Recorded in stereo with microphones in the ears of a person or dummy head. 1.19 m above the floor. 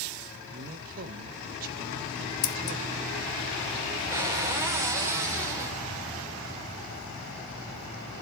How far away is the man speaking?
About 1.1 m.